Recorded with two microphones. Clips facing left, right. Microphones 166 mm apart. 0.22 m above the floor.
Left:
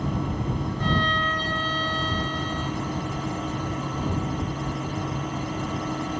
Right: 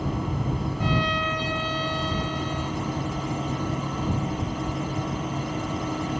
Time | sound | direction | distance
0.8 | a violin | 10° right (ahead or behind) | ?